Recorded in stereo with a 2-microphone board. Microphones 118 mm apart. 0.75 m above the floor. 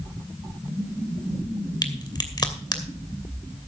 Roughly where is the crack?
Left.